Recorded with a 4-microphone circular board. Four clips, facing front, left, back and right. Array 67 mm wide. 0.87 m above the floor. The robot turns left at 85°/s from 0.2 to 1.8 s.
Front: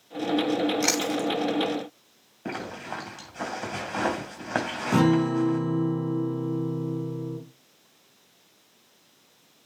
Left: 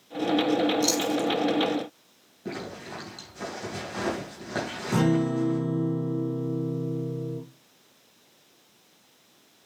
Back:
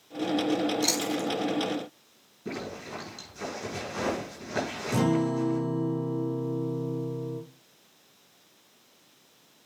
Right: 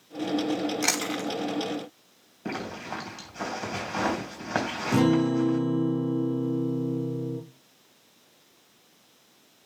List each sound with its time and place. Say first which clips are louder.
0.8 s chewing: left 4 dB, front 3 dB; 50° right, 1.3 m; by 1.3 s 95° right, 1.3 m
2.5 s a zipper: right 2 dB, front 3 dB; 30° right, 3 m
4.9 s a guitar: right 2 dB, front 4 dB; straight ahead, 3 m